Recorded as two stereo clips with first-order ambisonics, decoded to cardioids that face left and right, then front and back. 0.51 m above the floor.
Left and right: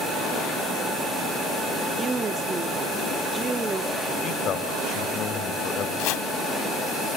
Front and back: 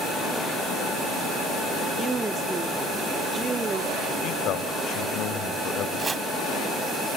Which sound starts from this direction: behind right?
A woman speaking, at 2.0 s.